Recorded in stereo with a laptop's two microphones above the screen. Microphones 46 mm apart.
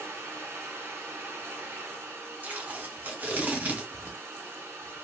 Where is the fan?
65° right (ahead or behind), 1.1 m.